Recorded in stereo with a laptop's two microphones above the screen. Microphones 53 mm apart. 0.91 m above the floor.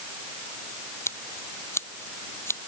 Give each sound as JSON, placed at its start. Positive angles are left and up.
{"t": 1.1, "sound": "scissors", "side_deg": 55}